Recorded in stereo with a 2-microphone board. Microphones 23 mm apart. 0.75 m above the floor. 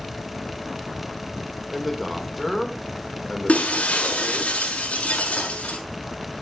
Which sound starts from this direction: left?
Breaking glass, at 3.5 s.